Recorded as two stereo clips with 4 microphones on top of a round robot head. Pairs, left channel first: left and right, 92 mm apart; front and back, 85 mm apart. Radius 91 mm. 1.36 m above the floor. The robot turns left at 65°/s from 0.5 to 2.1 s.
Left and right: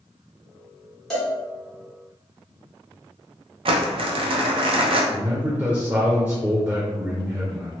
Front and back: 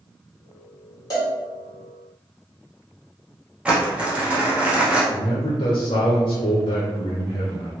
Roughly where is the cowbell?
Ahead.